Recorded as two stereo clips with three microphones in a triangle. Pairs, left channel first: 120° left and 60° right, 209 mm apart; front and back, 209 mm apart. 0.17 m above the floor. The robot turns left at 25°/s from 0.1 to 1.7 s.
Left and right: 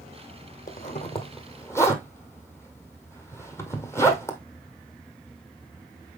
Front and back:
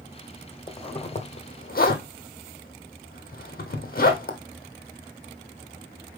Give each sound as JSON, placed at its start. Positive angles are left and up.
{"t": 0.7, "sound": "a zipper", "azimuth_deg": 70, "distance_m": 1.5}